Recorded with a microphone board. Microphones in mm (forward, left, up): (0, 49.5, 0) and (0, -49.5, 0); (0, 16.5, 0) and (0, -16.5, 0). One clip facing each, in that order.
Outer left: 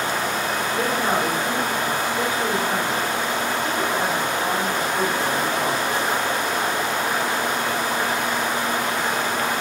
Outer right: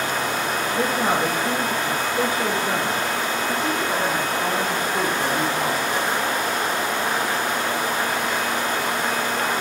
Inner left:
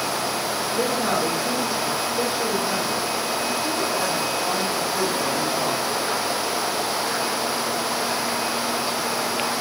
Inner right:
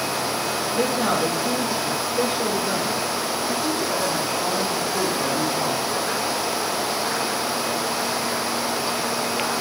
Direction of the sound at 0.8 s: 50° right (ahead or behind).